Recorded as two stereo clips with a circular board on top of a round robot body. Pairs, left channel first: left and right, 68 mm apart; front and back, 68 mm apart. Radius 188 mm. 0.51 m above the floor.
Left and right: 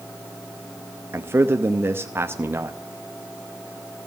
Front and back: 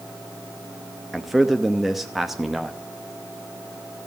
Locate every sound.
1.1 s a man speaking: 95° right, 1.1 m